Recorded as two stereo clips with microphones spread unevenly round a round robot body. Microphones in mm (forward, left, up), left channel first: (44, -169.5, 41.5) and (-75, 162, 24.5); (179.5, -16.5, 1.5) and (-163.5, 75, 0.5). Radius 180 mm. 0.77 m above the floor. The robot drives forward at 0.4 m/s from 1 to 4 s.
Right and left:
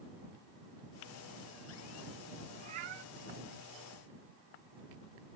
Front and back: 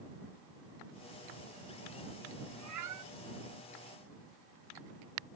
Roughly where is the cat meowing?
Behind left.